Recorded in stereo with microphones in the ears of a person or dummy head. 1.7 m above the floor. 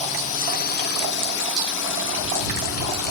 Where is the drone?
35° left (ahead or behind); by 3.1 s 75° left (ahead or behind).